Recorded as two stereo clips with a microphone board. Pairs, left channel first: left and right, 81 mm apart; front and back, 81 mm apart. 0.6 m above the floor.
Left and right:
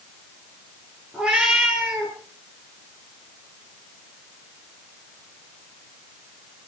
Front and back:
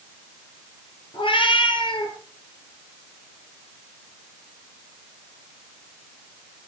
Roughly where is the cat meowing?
Ahead.